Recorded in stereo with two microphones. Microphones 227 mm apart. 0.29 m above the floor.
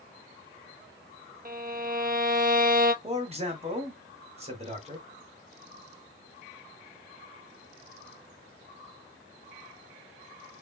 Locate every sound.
1.4 s a violin: 40° right (ahead or behind), 0.7 m
3.0 s a man speaking: 30° right (ahead or behind), 1.7 m